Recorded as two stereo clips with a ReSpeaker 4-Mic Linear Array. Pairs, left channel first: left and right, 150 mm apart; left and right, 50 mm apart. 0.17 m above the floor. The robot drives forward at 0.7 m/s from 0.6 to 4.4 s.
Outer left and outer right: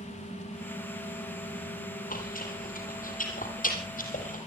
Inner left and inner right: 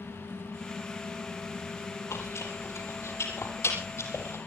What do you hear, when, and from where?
2.1 s chewing: 70° left (ahead or behind), 6 m; by 4.4 s 60° left (ahead or behind), 6.5 m